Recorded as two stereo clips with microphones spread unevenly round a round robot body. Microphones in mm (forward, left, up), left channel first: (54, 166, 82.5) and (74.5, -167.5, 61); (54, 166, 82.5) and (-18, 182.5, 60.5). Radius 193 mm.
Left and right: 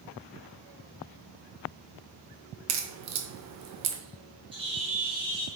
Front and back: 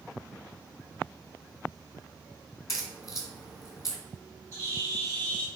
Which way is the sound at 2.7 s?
70° right.